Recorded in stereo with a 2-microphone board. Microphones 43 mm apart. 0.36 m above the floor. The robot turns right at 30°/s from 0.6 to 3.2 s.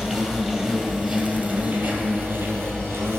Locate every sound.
0.0 s an insect: 170° right, 1.7 m; by 3.2 s 90° right, 1.7 m